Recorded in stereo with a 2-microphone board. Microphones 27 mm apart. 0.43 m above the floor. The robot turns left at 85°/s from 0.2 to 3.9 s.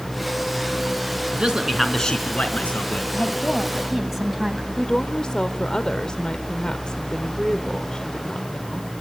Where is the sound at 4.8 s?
35° left (ahead or behind), 1.1 m.